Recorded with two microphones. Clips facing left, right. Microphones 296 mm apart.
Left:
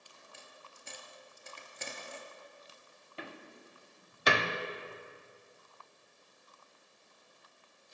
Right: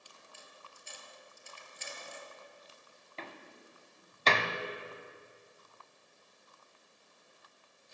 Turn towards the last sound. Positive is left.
turn(degrees=15)  # may be behind; listen again after turning